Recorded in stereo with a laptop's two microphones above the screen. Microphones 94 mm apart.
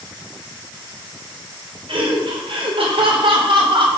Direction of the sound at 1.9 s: 80° right.